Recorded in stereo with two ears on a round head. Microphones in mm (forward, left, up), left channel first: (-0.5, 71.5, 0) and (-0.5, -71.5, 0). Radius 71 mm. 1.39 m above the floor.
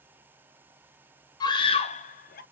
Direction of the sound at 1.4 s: 25° left (ahead or behind).